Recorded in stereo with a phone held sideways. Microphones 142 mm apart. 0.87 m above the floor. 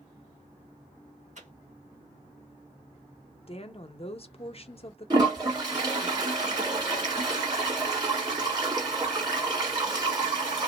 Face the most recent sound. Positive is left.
turn(degrees=-30)  # may be behind; listen again after turning